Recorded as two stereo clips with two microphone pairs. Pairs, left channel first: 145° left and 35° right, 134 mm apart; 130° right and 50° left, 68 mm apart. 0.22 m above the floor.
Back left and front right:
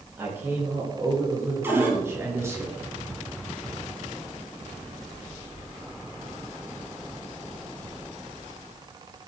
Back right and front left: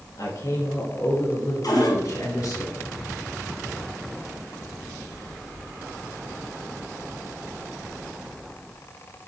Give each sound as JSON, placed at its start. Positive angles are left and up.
{"t": 0.2, "sound": "a man speaking", "azimuth_deg": -105, "distance_m": 4.5}
{"t": 1.6, "sound": "a cupboard door", "azimuth_deg": -105, "distance_m": 2.5}